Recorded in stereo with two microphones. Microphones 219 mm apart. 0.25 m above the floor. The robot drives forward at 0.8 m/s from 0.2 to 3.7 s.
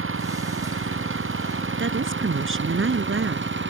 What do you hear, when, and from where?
0.0 s an engine running: 70° right (ahead or behind); by 3.7 s 60° right (ahead or behind)
1.8 s a woman speaking: 65° right (ahead or behind); by 3.5 s 70° right (ahead or behind)